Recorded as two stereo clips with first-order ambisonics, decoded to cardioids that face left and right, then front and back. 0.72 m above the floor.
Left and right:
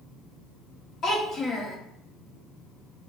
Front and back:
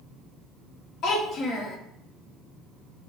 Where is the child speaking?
35° left, 0.8 m.